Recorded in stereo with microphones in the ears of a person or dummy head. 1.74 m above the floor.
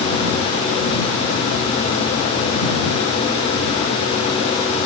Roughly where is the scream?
I don't hear a scream.